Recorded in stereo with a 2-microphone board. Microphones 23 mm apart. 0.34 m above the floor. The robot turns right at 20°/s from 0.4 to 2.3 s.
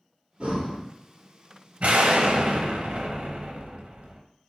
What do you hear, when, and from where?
0.4 s breathing: 50° right (ahead or behind), 2 m; by 0.8 s 60° right (ahead or behind), 2 m
1.8 s an explosion: 60° right (ahead or behind), 0.7 m